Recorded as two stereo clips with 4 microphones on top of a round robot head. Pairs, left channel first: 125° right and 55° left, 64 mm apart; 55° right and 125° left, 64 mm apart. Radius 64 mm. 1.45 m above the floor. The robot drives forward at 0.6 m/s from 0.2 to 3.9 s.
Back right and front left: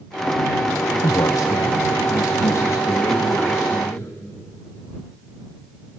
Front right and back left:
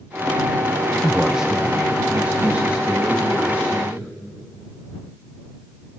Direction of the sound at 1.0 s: 150° right.